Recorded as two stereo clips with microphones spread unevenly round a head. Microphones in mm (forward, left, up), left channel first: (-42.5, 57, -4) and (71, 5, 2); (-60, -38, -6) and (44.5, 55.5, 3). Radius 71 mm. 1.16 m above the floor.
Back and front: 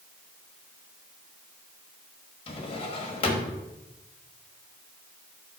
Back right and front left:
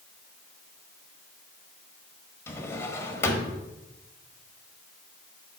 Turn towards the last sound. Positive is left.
turn(degrees=155)